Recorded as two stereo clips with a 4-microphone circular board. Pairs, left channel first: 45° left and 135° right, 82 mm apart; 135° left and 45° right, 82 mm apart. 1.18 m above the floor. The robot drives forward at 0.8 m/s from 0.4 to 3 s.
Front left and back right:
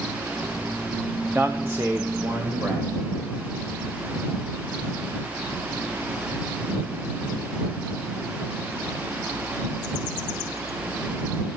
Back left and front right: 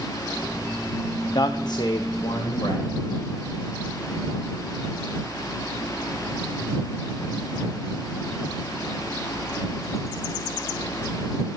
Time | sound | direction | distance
1.4 | a man speaking | 155° left | 0.6 m